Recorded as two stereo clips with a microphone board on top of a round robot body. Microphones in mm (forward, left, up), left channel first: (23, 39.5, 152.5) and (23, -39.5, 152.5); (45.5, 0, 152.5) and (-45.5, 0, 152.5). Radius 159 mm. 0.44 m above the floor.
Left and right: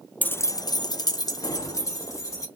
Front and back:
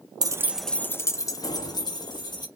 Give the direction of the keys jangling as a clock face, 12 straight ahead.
7 o'clock.